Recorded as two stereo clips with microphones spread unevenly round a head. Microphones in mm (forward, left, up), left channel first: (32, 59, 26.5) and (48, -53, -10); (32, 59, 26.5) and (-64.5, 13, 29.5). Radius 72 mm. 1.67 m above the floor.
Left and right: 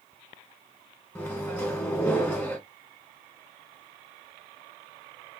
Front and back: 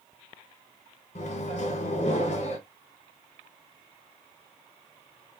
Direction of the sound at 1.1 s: 35° left.